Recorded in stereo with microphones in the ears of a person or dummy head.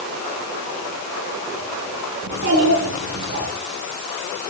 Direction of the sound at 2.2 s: 55° right (ahead or behind).